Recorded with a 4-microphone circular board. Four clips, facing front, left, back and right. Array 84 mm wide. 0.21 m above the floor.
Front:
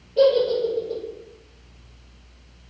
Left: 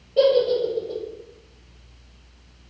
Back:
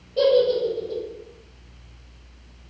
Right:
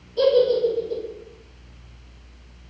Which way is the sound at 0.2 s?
85° left.